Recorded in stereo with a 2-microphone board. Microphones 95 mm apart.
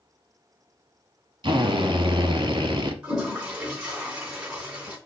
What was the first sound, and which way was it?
A drill, 55° right (ahead or behind).